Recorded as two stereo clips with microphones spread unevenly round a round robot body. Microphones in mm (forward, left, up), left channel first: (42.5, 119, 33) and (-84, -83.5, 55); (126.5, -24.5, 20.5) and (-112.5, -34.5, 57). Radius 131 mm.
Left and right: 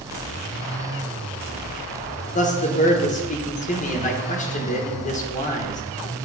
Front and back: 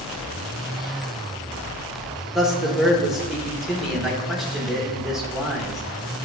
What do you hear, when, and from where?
2.4 s a man speaking: 85° left, 1.2 m